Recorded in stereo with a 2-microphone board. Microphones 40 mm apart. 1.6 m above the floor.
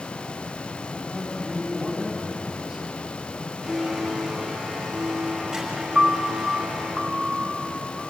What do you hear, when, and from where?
1.0 s a man speaking: 5° right (ahead or behind), 9 m
3.6 s a blender: 15° right (ahead or behind), 7.5 m
6.0 s a piano: 20° right (ahead or behind), 1.2 m